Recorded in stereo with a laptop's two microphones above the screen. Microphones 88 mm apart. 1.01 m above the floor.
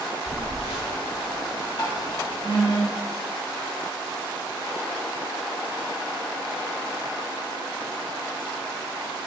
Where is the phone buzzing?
75° left (ahead or behind), 1.7 m.